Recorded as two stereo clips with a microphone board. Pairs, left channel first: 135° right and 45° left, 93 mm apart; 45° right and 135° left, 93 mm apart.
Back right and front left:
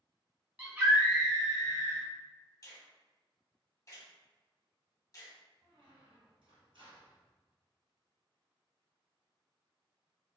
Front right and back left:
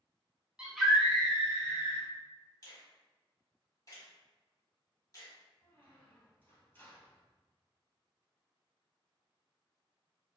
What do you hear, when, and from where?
0.6 s a scream: 75° left, 0.9 m; by 2.1 s straight ahead, 1.7 m
2.6 s a finger snap: 90° right, 1.5 m
5.6 s a squeak: 20° left, 1.7 m